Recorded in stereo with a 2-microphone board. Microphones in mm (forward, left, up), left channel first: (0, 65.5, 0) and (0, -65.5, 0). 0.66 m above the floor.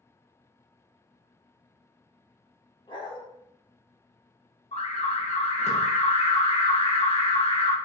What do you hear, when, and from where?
2.9 s a dog barking: 35° left (ahead or behind), 0.6 m
4.7 s an alarm: 50° left (ahead or behind), 0.6 m